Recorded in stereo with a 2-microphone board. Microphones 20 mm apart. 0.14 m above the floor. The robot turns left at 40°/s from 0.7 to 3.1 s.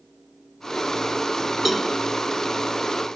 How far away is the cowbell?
About 0.7 m.